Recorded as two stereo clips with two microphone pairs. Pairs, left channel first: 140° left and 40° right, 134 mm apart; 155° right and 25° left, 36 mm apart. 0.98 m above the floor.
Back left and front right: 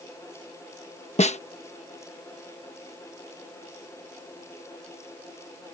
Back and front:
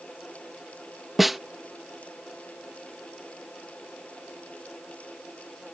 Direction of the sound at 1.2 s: 115° left.